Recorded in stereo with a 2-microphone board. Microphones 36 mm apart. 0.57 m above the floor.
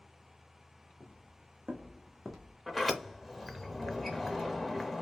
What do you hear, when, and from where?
1.0 s footsteps: 30° right (ahead or behind), 1.5 m; by 2.6 s 10° left (ahead or behind), 1.2 m
2.7 s a sliding door: centre (ahead or behind), 0.6 m